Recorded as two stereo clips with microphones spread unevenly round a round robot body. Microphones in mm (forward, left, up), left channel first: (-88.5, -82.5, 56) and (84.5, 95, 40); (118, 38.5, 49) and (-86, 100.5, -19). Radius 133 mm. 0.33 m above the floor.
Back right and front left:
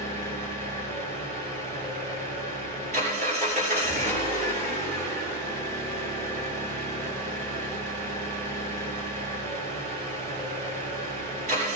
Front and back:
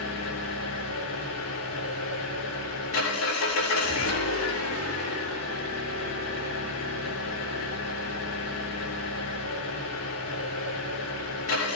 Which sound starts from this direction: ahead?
An engine running, at 0.0 s.